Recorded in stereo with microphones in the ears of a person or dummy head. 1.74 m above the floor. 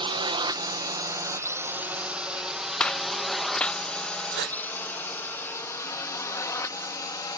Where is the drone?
25° right (ahead or behind); by 7.4 s 20° left (ahead or behind).